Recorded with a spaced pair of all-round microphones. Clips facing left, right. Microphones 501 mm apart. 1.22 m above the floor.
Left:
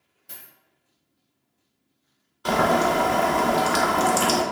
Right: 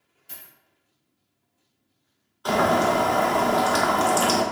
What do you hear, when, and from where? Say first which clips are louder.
0.3 s a dropped coin: left 1 dB; 60° left (ahead or behind), 1.1 m
2.5 s boiling: even; 45° left (ahead or behind), 0.5 m